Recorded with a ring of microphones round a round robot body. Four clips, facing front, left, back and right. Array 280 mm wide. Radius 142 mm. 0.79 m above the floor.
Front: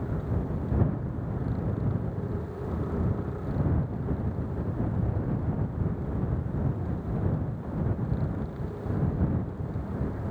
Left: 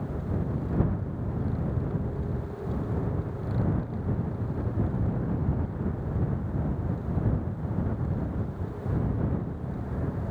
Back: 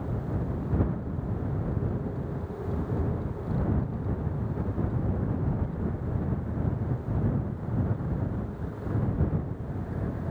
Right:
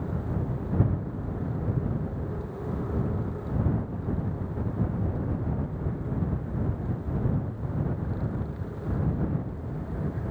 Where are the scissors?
I don't hear scissors.